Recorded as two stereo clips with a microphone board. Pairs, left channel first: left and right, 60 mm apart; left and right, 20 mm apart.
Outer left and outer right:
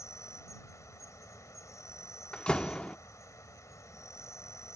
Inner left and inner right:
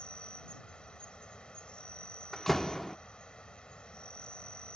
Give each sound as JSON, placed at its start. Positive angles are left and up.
{"t": 0.0, "sound": "an insect", "side_deg": 65}
{"t": 2.3, "sound": "a door slam", "side_deg": 15}